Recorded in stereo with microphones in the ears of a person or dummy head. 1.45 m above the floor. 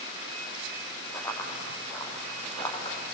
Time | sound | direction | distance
1.1 | running footsteps | 15° left (ahead or behind) | 7 m